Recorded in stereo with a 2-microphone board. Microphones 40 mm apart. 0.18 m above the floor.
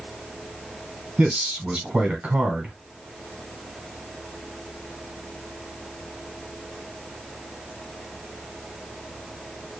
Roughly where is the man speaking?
Right.